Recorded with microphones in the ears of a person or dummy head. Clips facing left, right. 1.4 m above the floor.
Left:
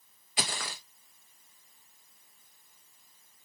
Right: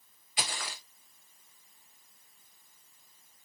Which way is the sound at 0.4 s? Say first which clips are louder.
Left 2 dB; 40° left (ahead or behind).